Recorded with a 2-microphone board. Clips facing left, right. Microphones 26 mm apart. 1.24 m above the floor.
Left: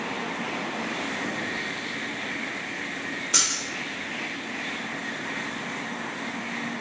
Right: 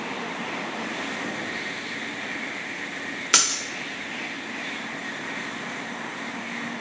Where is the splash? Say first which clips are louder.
Right 4 dB; 80° right, 0.6 m.